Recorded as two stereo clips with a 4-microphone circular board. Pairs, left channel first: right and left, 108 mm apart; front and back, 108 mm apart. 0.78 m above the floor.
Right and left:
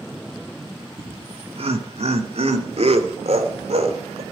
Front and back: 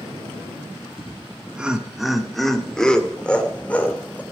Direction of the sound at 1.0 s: 110° left.